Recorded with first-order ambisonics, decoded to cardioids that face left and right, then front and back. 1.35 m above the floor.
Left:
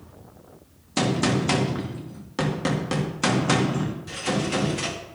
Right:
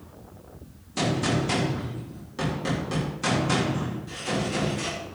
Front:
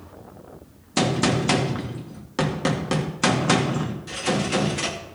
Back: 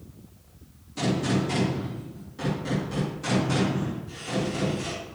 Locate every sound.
1.0 s a gunshot: 30° left, 2.5 m